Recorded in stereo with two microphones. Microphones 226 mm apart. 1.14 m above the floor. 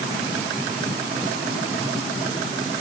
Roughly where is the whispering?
I don't hear whispering.